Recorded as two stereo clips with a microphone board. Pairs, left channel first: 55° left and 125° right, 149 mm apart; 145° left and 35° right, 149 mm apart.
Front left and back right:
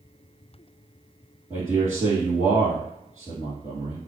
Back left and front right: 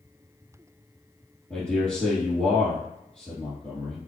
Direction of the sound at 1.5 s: 140° right.